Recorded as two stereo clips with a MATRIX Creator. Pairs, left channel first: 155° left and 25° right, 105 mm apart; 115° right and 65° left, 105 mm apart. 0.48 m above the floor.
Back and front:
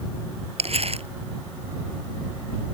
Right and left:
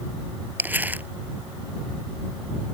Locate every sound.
0.6 s crumpling: 5° right